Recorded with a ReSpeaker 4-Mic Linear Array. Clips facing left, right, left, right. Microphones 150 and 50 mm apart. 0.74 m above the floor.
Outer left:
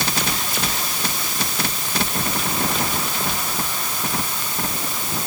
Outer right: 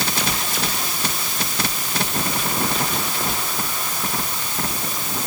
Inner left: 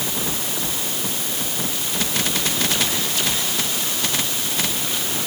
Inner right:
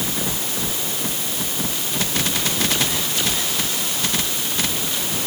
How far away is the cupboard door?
No cupboard door in this recording.